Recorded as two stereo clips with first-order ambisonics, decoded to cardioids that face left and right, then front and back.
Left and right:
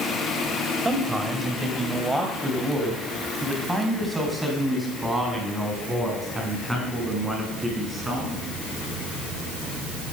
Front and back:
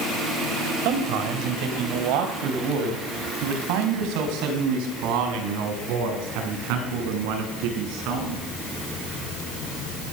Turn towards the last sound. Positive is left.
turn(degrees=180)